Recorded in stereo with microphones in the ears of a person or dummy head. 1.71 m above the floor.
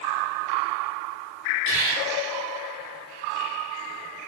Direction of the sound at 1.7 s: 45° right (ahead or behind).